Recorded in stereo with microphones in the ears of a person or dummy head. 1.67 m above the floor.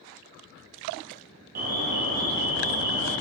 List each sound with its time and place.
1.6 s an alarm: 40° right (ahead or behind), 1.0 m